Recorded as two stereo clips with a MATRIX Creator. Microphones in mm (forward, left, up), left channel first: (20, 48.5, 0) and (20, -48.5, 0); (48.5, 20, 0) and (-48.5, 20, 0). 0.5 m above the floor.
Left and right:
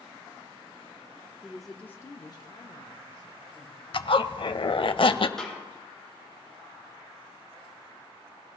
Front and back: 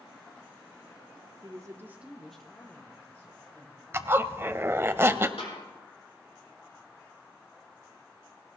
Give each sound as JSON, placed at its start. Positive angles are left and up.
{"t": 1.4, "sound": "a woman speaking", "azimuth_deg": -165, "distance_m": 0.9}
{"t": 3.9, "sound": "a zipper", "azimuth_deg": 115, "distance_m": 0.5}
{"t": 5.4, "sound": "a snare drum", "azimuth_deg": 5, "distance_m": 4.5}